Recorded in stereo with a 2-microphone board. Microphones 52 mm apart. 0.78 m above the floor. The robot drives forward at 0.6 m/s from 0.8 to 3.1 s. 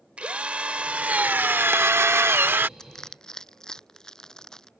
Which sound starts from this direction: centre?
Crushing, at 2.8 s.